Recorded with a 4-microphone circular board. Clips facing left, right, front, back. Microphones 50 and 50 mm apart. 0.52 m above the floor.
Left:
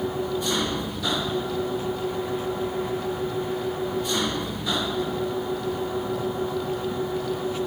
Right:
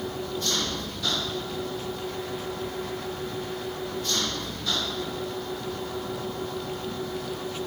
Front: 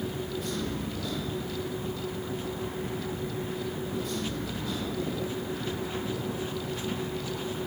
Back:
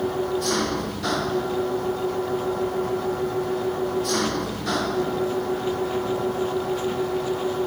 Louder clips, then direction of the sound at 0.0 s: Left 5 dB, back 9 dB; 165° left.